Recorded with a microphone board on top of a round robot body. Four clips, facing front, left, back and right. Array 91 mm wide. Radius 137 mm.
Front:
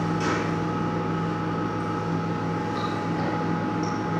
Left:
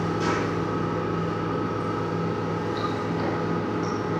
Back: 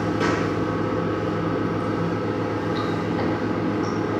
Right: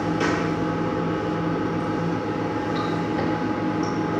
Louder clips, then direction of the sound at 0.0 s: Right 2 dB, back 3 dB; 105° right.